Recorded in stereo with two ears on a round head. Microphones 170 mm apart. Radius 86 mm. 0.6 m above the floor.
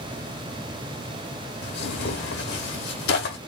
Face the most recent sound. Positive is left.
turn(degrees=60)  # may be behind; listen again after turning